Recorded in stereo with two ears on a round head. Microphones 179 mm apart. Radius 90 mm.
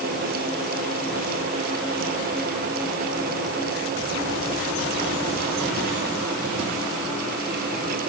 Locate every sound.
Only background noise.